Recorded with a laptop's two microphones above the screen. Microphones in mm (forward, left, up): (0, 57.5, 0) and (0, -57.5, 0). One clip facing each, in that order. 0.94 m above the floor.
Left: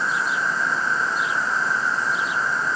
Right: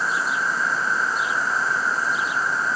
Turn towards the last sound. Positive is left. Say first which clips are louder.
# even
turn(degrees=0)  # may be behind; listen again after turning